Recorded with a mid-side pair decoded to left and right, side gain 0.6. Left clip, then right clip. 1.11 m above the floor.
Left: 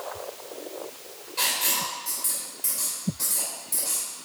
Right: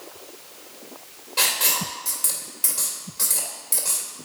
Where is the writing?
60° right, 2 m.